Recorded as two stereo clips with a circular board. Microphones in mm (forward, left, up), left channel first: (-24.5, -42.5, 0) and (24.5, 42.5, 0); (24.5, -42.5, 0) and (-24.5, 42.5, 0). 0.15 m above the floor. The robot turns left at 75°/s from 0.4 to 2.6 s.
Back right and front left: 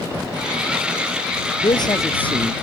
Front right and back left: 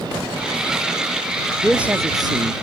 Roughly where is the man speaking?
Behind right.